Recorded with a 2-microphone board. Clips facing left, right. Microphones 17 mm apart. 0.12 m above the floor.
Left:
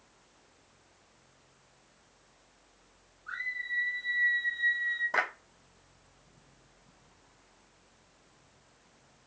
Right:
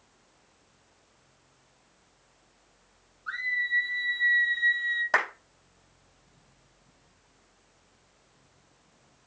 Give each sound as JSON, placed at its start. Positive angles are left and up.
{"t": 3.3, "sound": "a scream", "side_deg": -50, "distance_m": 4.0}
{"t": 5.1, "sound": "a clap", "side_deg": -60, "distance_m": 4.5}